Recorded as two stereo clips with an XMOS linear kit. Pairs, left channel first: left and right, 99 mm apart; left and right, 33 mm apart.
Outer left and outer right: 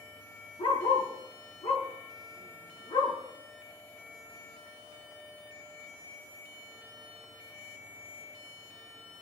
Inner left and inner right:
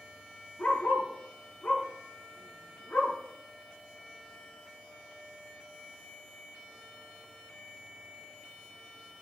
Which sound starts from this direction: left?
A dog barking, at 0.6 s.